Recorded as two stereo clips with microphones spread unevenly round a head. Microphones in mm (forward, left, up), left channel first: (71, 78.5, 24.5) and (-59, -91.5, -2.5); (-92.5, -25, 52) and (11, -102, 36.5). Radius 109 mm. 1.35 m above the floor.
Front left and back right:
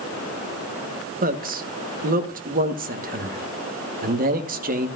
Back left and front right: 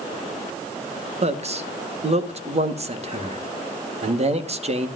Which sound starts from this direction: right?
A man speaking, at 1.2 s.